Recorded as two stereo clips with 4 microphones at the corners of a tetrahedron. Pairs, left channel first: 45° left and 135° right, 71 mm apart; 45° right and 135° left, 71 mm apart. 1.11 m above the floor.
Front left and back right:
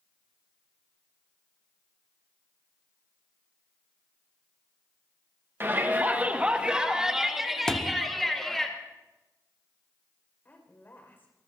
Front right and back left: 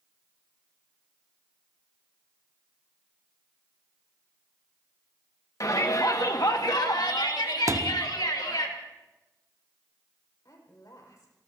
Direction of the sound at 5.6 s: 80° right.